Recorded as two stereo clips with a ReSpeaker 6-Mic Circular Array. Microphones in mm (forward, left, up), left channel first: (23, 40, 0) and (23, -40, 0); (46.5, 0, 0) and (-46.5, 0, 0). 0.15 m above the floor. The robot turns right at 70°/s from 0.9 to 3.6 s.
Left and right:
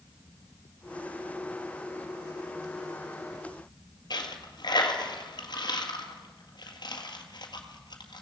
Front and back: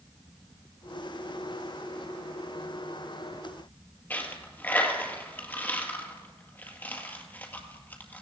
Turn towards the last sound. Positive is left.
turn(degrees=70)